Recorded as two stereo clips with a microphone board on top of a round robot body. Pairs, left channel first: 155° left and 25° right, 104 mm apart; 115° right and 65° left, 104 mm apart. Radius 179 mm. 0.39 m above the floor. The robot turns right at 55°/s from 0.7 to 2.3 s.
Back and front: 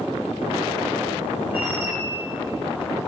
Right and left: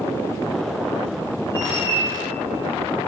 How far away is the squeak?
About 5 m.